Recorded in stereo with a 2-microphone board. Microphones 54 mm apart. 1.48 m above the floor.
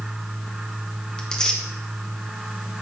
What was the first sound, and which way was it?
Tearing paper, 15° left (ahead or behind).